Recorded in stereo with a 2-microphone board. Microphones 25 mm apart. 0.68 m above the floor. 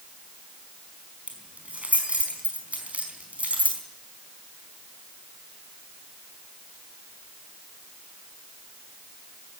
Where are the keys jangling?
80° right, 4.5 m.